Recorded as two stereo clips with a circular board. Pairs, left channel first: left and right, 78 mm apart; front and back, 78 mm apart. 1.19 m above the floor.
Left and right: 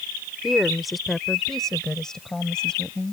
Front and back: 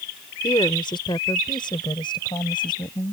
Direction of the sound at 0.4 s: 5° right.